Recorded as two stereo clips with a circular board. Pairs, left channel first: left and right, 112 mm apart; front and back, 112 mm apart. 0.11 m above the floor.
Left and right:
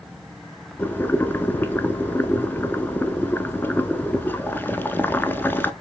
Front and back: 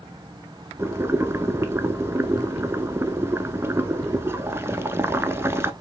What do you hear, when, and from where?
0.8 s boiling: 140° left, 0.5 m